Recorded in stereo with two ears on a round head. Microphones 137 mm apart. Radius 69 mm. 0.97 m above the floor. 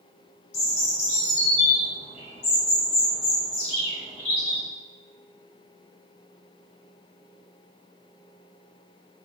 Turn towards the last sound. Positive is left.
turn(degrees=45)  # may be behind; listen again after turning